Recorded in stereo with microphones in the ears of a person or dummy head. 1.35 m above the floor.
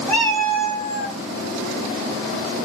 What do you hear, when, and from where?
0.1 s a cat meowing: 10° left (ahead or behind), 2 m; by 1.2 s 20° left (ahead or behind), 1.7 m